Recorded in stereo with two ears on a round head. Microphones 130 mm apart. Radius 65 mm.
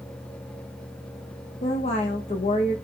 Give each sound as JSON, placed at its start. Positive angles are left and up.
{"t": 1.6, "sound": "a woman speaking", "side_deg": 45, "distance_m": 1.8}